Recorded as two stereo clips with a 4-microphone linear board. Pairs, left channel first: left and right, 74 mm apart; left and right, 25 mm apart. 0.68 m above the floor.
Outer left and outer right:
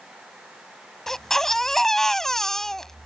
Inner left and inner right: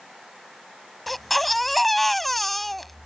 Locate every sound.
1.1 s a baby crying: 5° left (ahead or behind)